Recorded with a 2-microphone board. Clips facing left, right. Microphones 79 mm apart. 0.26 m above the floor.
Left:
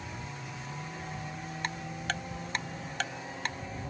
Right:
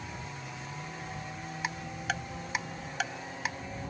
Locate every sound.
1.6 s ticking: 5° right (ahead or behind)